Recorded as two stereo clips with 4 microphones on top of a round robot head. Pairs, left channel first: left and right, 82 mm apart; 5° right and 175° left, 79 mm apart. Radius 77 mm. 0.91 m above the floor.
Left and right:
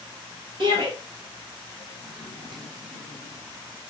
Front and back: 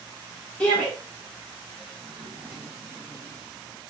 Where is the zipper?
125° right, 2 m.